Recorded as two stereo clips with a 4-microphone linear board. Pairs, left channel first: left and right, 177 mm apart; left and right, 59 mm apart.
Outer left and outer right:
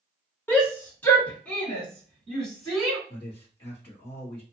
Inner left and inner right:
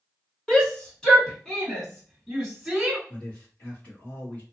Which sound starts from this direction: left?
A man speaking, at 3.1 s.